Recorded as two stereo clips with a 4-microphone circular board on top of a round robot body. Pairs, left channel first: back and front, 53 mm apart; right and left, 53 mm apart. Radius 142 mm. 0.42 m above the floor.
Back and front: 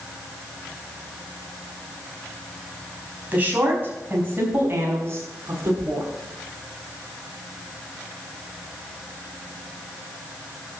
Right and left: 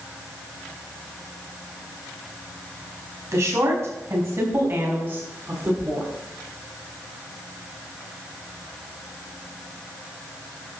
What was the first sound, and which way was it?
A woman speaking, 60° left.